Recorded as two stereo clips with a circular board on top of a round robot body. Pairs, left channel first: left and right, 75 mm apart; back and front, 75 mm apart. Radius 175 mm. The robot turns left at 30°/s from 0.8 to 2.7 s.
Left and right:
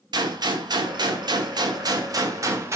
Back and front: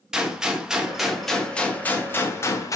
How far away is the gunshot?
About 0.6 m.